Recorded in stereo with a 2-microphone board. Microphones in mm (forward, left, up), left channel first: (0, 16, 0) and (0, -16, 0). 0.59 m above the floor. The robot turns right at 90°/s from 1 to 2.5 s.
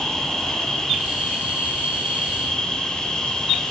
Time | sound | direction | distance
0.0 | an insect | 15° left | 4 m